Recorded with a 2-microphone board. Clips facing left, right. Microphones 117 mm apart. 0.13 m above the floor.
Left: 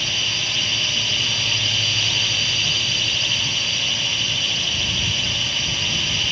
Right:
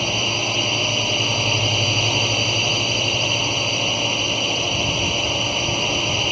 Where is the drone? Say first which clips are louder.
Right 9 dB; 45° right (ahead or behind).